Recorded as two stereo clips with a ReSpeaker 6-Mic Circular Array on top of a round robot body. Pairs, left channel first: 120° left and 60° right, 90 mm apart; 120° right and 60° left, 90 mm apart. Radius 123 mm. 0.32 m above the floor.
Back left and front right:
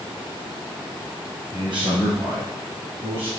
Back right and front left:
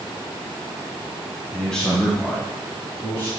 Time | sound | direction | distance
1.5 | a man speaking | 35° right | 2.5 m